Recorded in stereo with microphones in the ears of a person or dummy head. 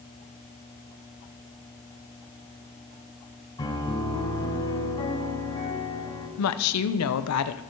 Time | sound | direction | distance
3.6 | a piano | 20° left (ahead or behind) | 3.5 m
6.4 | a woman speaking | 85° left | 0.8 m